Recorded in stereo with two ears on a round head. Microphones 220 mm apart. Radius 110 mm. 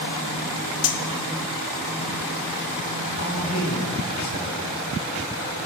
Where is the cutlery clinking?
65° left (ahead or behind), 1.4 m.